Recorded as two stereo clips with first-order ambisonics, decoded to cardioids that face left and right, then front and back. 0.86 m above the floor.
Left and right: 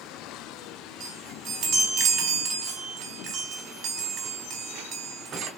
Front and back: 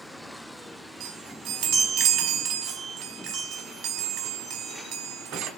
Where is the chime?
140° right, 1.1 m.